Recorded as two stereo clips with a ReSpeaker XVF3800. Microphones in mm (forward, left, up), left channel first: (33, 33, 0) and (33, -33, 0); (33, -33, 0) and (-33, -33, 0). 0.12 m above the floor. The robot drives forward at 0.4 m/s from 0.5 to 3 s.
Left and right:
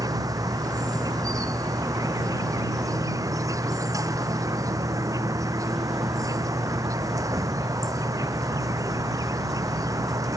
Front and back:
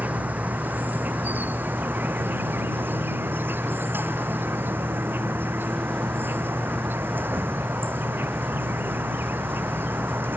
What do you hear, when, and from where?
0.0 s an insect: 115° right; by 10.4 s 120° right